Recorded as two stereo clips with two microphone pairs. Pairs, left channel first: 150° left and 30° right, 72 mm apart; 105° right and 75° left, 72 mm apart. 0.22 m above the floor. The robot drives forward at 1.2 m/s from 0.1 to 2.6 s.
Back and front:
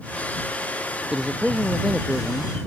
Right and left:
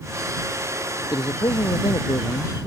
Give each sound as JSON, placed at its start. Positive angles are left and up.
{"t": 1.1, "sound": "a man speaking", "azimuth_deg": -110}